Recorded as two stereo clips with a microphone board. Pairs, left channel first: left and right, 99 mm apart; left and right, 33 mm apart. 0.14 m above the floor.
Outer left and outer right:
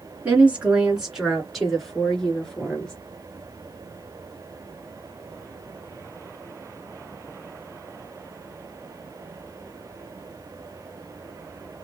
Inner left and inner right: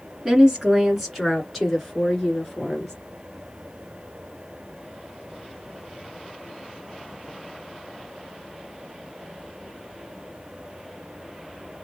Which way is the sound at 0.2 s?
15° right (ahead or behind).